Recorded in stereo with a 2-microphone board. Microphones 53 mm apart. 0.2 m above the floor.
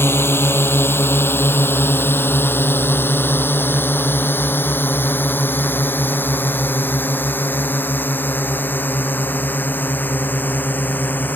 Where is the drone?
45° left (ahead or behind); by 11.4 s 35° left (ahead or behind).